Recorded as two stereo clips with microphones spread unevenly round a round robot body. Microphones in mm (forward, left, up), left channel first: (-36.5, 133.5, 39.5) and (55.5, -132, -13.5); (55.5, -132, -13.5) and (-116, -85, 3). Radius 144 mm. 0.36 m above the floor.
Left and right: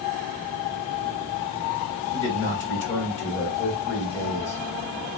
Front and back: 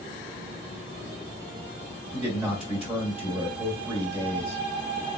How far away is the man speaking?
About 1.7 m.